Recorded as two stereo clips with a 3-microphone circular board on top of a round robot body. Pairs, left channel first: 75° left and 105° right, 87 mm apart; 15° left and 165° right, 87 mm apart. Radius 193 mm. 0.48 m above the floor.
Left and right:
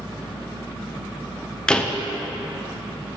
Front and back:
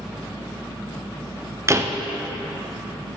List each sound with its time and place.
1.7 s a door slam: 150° left, 0.6 m